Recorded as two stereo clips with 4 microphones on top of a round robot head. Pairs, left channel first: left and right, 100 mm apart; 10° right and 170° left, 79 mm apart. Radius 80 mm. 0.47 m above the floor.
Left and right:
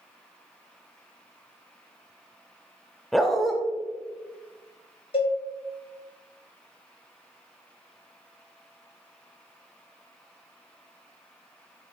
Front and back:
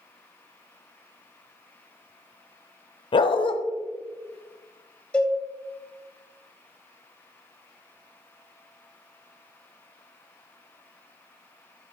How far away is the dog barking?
About 0.8 m.